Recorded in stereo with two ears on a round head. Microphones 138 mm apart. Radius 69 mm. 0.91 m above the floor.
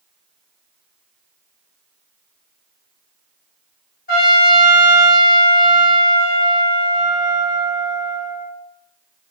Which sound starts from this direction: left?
A trumpet, at 4.1 s.